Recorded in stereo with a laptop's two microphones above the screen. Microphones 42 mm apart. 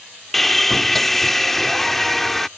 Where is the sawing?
5° left (ahead or behind).